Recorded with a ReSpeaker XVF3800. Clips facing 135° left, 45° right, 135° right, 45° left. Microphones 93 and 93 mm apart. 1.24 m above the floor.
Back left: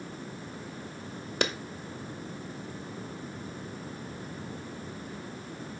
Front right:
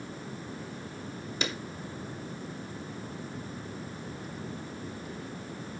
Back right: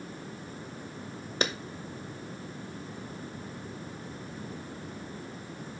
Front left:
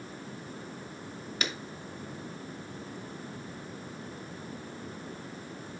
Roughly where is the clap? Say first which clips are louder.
Back left 5 dB, back right 6 dB; behind.